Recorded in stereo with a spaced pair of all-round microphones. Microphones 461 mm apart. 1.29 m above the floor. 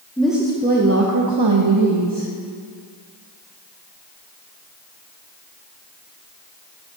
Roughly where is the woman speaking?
Centre.